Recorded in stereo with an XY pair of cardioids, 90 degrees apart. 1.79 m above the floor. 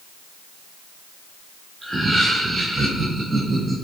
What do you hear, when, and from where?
1.8 s laughter: 25° right, 1.1 m; by 3.8 s 35° right, 2.5 m